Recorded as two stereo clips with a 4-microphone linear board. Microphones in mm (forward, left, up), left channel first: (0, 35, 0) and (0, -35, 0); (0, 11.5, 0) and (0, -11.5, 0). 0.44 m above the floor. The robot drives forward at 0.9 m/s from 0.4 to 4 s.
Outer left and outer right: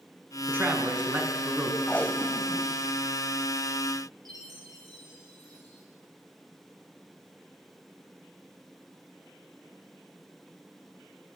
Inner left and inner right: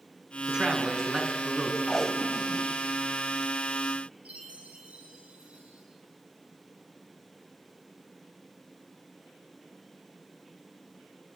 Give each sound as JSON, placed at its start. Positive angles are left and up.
{"t": 0.5, "sound": "a man speaking", "side_deg": -30, "distance_m": 4.5}
{"t": 1.9, "sound": "tape being pulled", "side_deg": 20, "distance_m": 1.5}
{"t": 4.2, "sound": "a chime", "side_deg": -80, "distance_m": 6.5}